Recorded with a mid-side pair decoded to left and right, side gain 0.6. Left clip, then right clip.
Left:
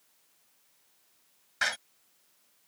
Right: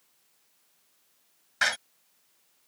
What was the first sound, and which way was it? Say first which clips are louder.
A door slam: right 4 dB; 20° right.